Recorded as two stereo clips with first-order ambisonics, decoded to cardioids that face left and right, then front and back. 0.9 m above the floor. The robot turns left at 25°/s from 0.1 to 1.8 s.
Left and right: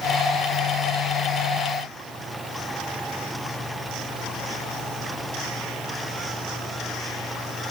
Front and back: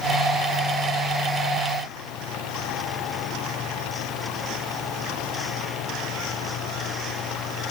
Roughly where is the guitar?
No guitar in this recording.